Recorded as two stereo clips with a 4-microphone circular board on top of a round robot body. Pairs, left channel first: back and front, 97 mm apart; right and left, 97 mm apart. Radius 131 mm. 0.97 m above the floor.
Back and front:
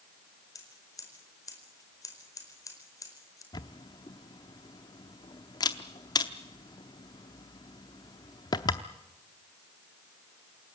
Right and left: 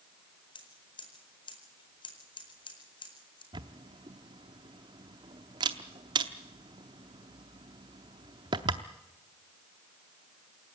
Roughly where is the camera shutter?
Behind left.